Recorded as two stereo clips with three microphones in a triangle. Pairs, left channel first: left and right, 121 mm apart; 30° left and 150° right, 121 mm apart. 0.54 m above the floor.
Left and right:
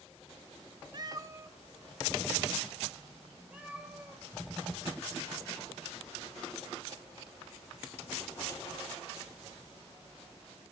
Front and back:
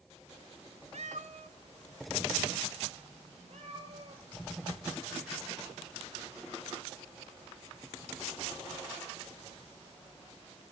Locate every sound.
0.9 s a cat meowing: 140° right, 0.8 m; by 4.2 s 170° right, 4.5 m